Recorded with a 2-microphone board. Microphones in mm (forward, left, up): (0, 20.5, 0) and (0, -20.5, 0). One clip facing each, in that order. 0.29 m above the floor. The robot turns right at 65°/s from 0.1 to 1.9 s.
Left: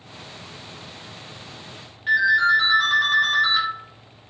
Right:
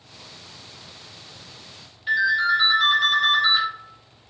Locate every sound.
2.1 s a ringtone: 55° left (ahead or behind), 1.6 m